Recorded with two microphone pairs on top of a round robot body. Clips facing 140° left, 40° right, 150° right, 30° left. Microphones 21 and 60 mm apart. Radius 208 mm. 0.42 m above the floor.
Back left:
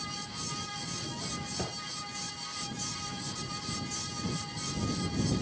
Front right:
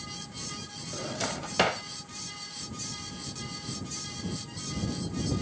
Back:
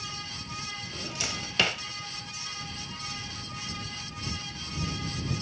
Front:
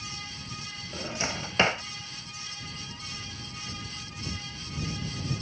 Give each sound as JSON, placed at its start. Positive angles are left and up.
{"t": 0.9, "sound": "a drawer", "azimuth_deg": -30}